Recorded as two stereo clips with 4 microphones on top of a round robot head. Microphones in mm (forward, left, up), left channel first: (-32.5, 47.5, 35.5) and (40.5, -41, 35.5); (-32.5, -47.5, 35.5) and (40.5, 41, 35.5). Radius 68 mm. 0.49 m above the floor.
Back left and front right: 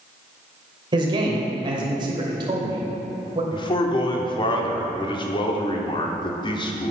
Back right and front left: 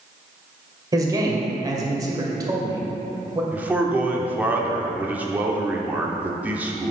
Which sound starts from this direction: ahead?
A man speaking, at 0.9 s.